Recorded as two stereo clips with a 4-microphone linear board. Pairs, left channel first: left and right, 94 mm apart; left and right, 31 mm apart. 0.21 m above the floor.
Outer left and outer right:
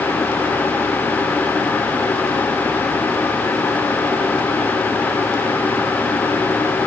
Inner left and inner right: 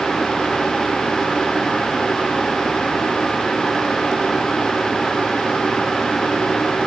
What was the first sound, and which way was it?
Only background noise.